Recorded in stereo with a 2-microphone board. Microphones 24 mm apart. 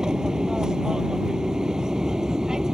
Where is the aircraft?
30° right (ahead or behind).